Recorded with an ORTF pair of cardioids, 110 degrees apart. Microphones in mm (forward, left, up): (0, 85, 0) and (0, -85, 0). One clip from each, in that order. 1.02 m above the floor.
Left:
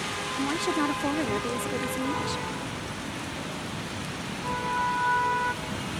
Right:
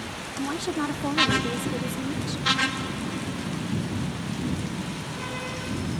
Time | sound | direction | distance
0.4 | a woman speaking | 5° left | ?